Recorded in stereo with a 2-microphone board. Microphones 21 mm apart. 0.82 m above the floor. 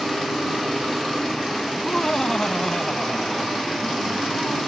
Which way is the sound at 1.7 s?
30° left (ahead or behind).